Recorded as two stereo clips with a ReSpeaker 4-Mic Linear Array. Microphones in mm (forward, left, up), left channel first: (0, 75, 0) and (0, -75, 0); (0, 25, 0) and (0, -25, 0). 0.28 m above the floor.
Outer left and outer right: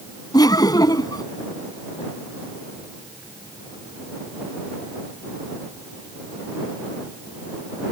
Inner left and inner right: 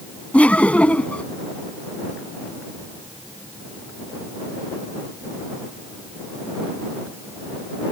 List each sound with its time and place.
0.3 s laughter: 25° left (ahead or behind)